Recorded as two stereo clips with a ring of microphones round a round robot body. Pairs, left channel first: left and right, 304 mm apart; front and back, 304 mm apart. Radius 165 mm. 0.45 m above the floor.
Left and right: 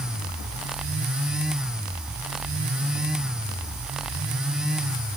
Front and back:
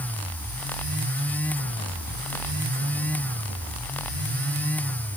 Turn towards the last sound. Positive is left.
No sound to turn to.